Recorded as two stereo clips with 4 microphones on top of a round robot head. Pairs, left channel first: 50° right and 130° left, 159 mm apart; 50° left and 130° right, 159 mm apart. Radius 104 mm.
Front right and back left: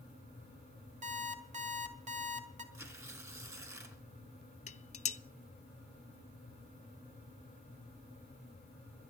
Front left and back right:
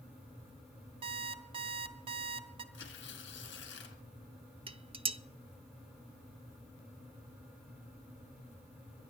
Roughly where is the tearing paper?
Ahead left.